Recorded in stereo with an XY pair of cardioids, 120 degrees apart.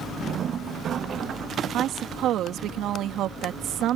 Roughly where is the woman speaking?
Right.